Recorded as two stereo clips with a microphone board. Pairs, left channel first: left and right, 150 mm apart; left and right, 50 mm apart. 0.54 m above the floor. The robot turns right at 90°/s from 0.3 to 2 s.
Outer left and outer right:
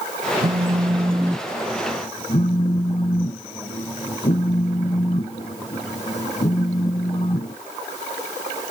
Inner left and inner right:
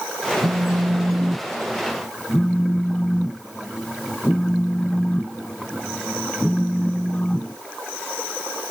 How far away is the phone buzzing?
About 0.7 m.